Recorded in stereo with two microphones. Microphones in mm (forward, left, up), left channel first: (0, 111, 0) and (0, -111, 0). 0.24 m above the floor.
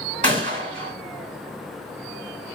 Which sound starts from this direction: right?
A gunshot, at 0.2 s.